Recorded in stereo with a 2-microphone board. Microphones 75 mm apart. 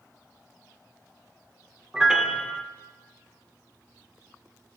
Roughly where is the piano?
Centre.